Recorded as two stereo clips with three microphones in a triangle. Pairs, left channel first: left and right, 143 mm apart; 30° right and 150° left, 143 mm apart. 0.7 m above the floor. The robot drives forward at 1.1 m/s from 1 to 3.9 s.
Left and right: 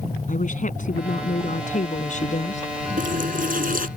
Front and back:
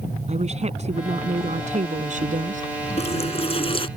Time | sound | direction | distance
0.3 | a woman speaking | 115° left | ?
3.0 | a running tap | 70° right | ?